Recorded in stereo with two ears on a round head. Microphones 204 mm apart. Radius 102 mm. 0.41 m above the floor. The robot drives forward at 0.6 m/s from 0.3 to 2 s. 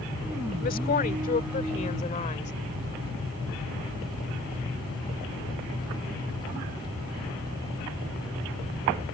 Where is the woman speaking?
40° left (ahead or behind); by 2.5 s 30° left (ahead or behind).